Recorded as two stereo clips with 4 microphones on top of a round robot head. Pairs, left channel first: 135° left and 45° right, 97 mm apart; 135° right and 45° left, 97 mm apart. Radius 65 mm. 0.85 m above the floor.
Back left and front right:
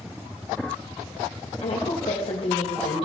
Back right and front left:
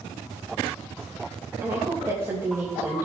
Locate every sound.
1.6 s a woman speaking: 110° left, 3 m